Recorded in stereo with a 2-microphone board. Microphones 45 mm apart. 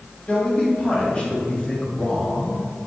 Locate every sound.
0.3 s a man speaking: 30° left (ahead or behind), 3 m; by 2.7 s 25° left (ahead or behind), 1.9 m